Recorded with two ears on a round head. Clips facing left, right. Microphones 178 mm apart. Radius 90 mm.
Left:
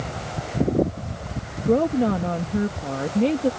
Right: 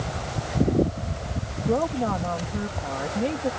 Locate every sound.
1.7 s a woman speaking: 35° left (ahead or behind)